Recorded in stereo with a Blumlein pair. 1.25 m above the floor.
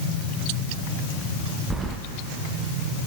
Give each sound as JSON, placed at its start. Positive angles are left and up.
{"t": 1.7, "sound": "keys jangling", "azimuth_deg": -10, "distance_m": 0.9}